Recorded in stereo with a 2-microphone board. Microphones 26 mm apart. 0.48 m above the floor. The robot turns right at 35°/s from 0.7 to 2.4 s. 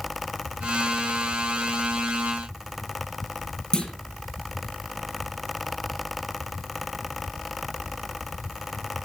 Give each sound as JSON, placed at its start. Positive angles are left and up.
{"t": 3.7, "sound": "a clunk", "side_deg": 30, "distance_m": 4.5}